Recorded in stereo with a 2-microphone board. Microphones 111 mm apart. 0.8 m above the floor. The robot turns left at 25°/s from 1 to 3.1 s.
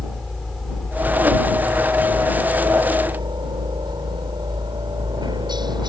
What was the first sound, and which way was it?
A helicopter, centre (ahead or behind).